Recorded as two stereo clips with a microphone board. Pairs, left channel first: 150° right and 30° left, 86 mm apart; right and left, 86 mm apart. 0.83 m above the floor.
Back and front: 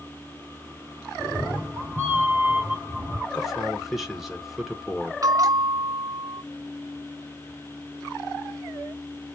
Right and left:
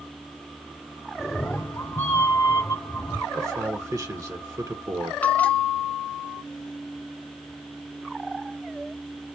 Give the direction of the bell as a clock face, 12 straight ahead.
1 o'clock.